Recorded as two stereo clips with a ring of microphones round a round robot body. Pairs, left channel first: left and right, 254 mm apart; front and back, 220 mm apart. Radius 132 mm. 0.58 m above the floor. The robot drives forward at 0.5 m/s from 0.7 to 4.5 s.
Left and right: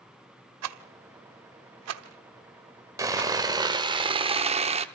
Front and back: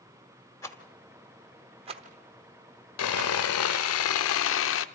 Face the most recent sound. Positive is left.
turn(degrees=-25)